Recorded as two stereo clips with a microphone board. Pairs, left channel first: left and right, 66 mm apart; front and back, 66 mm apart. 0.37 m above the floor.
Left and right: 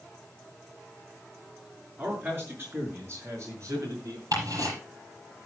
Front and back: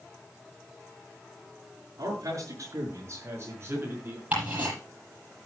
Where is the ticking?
115° right, 8.5 m.